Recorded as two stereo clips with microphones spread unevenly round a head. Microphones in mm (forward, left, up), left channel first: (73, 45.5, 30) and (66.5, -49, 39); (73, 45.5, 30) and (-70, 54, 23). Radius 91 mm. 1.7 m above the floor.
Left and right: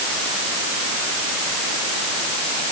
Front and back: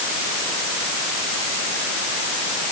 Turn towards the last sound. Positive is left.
No sound to turn to.